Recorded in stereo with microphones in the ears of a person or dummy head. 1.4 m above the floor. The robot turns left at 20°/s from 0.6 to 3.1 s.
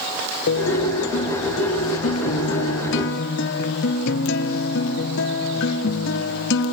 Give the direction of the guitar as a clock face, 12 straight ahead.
8 o'clock.